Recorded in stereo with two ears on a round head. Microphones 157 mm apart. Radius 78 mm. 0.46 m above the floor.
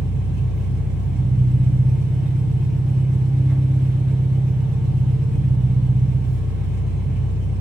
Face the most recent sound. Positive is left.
turn(degrees=-5)  # may be behind; listen again after turning